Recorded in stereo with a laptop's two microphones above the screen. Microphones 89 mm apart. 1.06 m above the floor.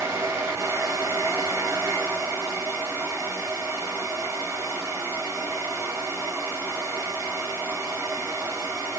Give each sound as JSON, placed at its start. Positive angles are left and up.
{"t": 0.0, "sound": "a fan", "side_deg": -30, "distance_m": 1.1}